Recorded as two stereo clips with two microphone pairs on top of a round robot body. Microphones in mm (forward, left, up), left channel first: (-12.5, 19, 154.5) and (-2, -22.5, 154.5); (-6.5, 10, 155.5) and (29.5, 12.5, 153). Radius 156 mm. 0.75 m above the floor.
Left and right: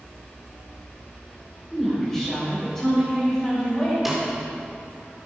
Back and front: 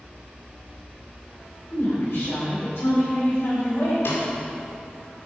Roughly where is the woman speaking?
Behind.